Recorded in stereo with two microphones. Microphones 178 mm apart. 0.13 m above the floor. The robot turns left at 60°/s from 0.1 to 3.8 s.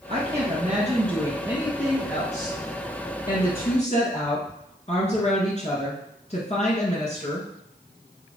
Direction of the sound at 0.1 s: 65° right.